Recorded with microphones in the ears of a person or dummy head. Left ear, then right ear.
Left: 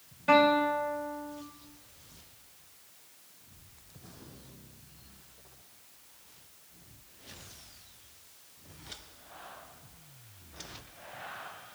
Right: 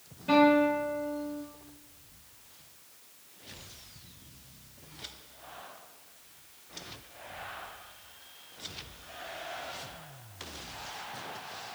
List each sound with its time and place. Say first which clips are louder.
0.3 s a guitar: even; 25° left (ahead or behind), 0.7 m